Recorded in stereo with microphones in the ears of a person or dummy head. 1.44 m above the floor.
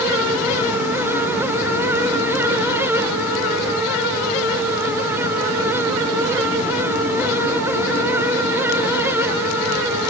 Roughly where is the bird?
I don't hear a bird.